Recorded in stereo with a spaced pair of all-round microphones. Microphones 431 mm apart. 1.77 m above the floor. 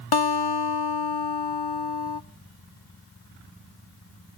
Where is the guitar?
60° left (ahead or behind), 0.8 m.